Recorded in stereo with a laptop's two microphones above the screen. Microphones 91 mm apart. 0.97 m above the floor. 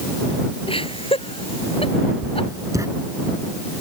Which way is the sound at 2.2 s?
35° right (ahead or behind).